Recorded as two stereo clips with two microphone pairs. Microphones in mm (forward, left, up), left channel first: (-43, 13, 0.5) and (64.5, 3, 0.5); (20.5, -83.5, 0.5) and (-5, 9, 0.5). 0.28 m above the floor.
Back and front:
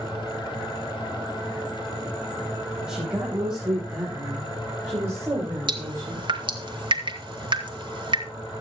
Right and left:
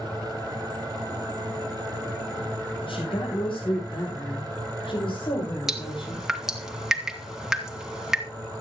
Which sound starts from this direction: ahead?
Dripping, at 5.7 s.